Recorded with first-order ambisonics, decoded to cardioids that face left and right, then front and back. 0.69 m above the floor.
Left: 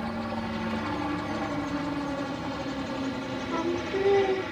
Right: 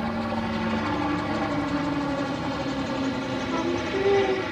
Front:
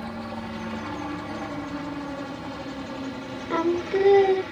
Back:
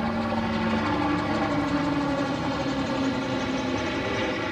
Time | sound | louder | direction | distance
0.0 | a helicopter | right 4 dB, back 7 dB | 150° right | ?
3.5 | singing | right 1 dB, front 3 dB | 5° right | ?